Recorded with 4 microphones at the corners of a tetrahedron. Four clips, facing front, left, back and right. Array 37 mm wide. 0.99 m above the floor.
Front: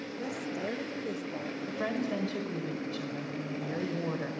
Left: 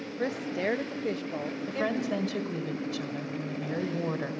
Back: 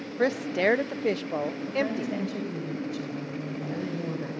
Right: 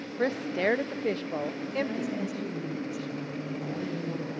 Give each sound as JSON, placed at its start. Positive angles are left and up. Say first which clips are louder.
{"t": 0.2, "sound": "a woman speaking", "louder": "right 3 dB, back 13 dB", "azimuth_deg": -165, "distance_m": 0.6}
{"t": 1.7, "sound": "a woman speaking", "louder": "left 4 dB, back 2 dB", "azimuth_deg": 75, "distance_m": 5.0}